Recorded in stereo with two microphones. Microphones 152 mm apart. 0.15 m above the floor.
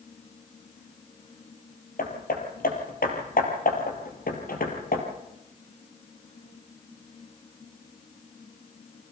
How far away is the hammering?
About 3 m.